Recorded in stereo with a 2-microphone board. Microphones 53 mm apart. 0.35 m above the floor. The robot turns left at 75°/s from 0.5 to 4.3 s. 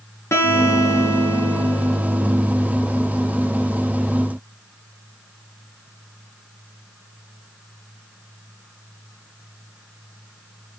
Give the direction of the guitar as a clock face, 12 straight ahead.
8 o'clock.